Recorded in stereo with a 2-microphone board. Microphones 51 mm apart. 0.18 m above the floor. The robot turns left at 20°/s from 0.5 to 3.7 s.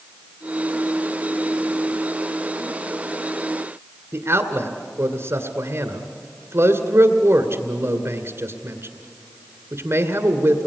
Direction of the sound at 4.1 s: 55° right (ahead or behind).